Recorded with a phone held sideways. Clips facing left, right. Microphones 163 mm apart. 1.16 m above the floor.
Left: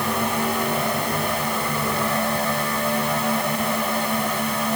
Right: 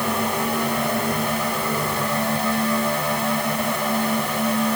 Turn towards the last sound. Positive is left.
No sound to turn to.